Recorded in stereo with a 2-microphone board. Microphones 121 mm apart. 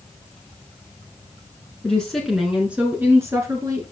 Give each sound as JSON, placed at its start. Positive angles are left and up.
{"t": 1.8, "sound": "a woman speaking", "side_deg": 5, "distance_m": 2.5}